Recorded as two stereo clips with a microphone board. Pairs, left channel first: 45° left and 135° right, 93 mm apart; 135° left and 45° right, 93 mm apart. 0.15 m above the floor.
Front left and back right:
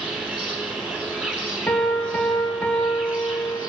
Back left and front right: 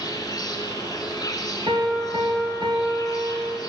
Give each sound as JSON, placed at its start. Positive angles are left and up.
{"t": 0.0, "sound": "an insect", "azimuth_deg": 150, "distance_m": 2.0}
{"t": 1.7, "sound": "a piano", "azimuth_deg": -30, "distance_m": 2.5}